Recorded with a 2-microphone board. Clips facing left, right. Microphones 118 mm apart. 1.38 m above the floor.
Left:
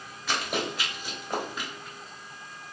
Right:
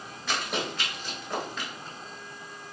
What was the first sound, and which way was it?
Running footsteps, centre (ahead or behind).